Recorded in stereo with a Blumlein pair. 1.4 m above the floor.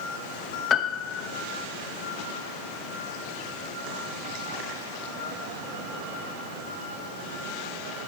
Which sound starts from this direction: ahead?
A piano, at 0.7 s.